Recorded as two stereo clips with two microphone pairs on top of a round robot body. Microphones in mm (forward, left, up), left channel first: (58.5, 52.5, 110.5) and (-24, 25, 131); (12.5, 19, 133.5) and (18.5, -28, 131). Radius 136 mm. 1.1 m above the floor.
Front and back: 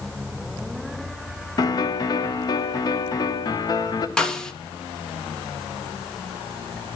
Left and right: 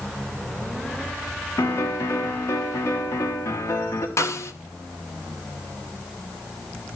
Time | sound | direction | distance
1.6 | a piano | 70° left | 1.0 m
4.2 | a snare drum | 95° left | 1.5 m